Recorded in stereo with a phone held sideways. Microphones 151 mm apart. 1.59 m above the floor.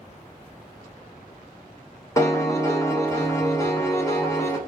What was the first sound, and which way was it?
A piano, 20° left (ahead or behind).